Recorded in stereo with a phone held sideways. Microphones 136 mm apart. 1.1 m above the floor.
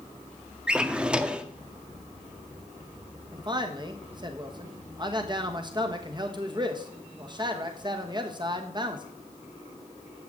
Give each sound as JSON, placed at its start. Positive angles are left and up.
{"t": 0.7, "sound": "a drawer", "side_deg": -5, "distance_m": 0.6}
{"t": 3.3, "sound": "a man speaking", "side_deg": -35, "distance_m": 1.2}